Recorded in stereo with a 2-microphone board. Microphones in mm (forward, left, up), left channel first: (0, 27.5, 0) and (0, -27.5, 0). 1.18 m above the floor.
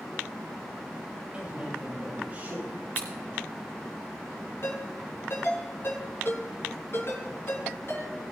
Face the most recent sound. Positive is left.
turn(degrees=50)  # may be behind; listen again after turning